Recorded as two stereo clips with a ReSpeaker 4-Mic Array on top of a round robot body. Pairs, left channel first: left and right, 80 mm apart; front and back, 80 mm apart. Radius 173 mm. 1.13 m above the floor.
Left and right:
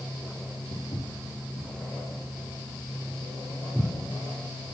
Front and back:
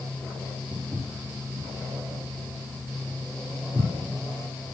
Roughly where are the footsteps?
Behind left.